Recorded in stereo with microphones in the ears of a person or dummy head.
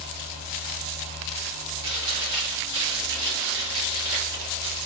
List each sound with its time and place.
0.0 s a fan: 65° right (ahead or behind), 1.0 m
1.8 s chewing: 75° right (ahead or behind), 2 m